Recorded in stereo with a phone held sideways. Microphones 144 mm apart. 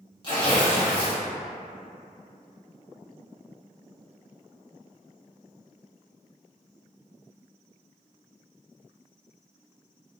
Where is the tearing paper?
35° left (ahead or behind), 1.3 m.